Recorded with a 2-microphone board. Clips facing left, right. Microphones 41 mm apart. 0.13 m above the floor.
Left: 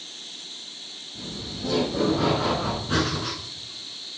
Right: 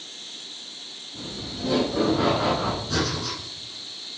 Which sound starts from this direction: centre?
Laughter, at 1.1 s.